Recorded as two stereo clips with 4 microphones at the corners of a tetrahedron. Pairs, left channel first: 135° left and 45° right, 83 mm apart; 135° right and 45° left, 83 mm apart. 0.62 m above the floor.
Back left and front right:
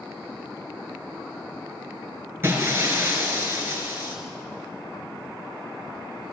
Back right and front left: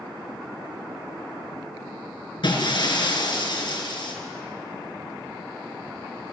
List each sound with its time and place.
2.4 s breaking glass: 110° right, 4.5 m